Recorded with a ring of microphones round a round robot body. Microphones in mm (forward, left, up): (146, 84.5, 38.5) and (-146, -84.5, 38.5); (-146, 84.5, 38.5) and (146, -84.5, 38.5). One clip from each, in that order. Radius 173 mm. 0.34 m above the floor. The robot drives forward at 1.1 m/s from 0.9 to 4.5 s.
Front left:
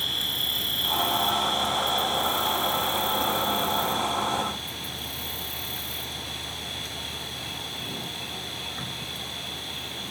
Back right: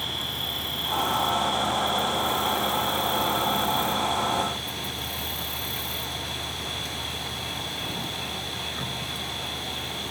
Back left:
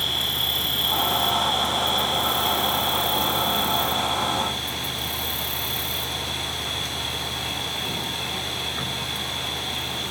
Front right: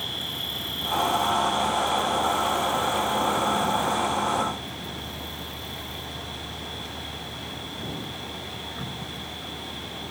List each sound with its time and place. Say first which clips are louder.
0.0 s an insect: front left 3 dB, back left 7 dB; 95° left; by 10.1 s 115° left